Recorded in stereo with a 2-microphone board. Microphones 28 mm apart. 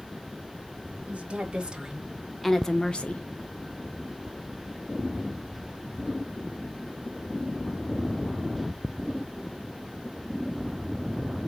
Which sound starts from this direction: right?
A woman speaking, at 1.1 s.